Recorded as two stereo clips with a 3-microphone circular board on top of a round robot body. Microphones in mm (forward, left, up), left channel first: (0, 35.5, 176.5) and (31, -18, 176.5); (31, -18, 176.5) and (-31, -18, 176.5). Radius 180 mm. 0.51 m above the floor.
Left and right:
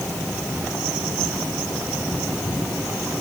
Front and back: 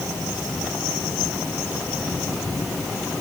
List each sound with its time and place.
Only background noise.